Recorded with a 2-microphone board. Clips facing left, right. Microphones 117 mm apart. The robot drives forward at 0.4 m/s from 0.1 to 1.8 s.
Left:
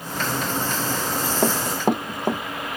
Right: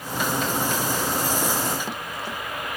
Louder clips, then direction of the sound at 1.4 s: Left 5 dB; 60° left (ahead or behind).